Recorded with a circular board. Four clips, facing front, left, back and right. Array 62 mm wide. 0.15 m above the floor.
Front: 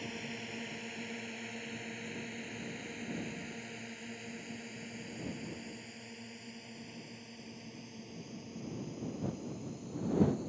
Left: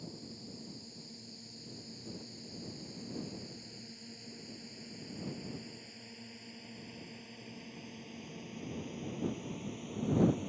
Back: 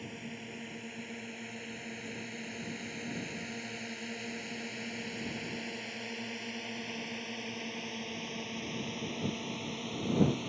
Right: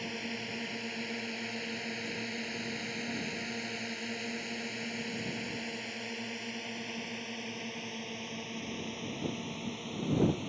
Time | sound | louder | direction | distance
0.0 | a drone | right 10 dB, front 1 dB | 80° right | ?